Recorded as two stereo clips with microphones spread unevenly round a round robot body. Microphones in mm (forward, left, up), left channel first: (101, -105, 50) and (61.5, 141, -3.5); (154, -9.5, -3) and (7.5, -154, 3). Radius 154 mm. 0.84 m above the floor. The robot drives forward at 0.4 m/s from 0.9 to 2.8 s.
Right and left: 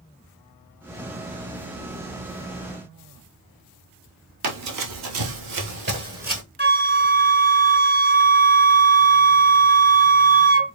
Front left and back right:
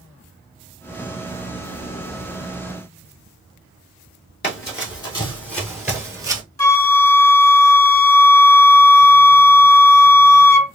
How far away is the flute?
About 0.7 m.